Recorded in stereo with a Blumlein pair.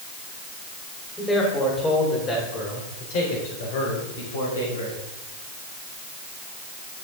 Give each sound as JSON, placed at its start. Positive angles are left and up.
{"t": 1.2, "sound": "a man speaking", "azimuth_deg": 15, "distance_m": 4.0}